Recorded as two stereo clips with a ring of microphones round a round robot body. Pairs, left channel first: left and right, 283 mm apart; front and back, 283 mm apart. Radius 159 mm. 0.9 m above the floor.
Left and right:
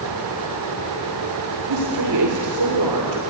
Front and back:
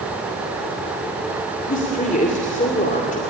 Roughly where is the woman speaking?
Ahead right.